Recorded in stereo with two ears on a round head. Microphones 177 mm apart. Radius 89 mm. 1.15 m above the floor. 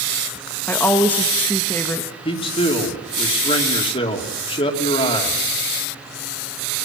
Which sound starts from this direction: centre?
A woman speaking, at 0.7 s.